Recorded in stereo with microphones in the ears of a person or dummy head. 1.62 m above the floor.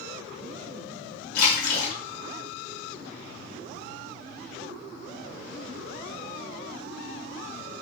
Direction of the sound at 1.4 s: 60° left (ahead or behind).